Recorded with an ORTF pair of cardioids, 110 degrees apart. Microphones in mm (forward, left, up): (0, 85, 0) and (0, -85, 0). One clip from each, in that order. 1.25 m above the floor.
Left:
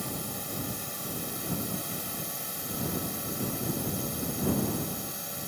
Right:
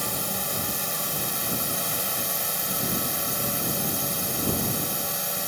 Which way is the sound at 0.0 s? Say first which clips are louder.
Right 7 dB; 55° right.